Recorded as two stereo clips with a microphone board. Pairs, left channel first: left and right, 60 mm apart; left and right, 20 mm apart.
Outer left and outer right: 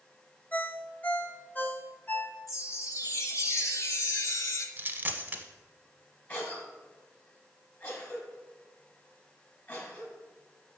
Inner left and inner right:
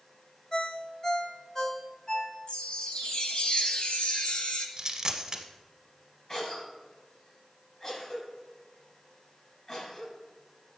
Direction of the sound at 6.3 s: 35° left (ahead or behind).